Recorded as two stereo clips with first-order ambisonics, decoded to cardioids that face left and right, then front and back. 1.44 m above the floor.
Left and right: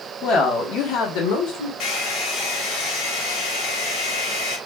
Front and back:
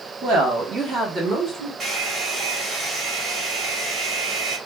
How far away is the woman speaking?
About 1.1 m.